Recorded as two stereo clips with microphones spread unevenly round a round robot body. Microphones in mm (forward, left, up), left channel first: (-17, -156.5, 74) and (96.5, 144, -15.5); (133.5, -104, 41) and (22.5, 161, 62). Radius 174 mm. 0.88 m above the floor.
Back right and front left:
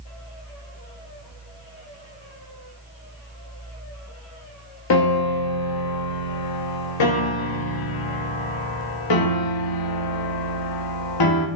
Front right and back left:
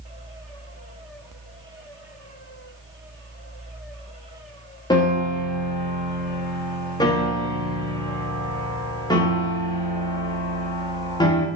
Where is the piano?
145° right, 1.4 m.